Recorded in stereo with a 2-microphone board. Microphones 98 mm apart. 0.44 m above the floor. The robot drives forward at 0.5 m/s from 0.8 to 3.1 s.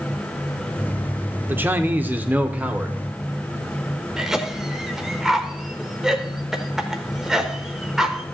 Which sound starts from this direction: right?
A man speaking, at 1.5 s.